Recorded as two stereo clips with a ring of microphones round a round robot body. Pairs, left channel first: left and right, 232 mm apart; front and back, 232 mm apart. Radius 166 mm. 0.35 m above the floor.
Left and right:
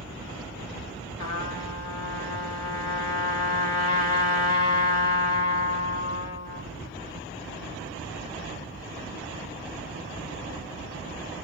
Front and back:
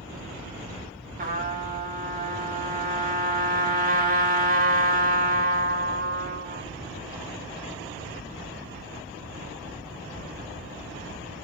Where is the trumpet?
125° left, 1.2 m.